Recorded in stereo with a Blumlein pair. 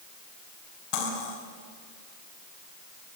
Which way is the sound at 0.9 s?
35° left.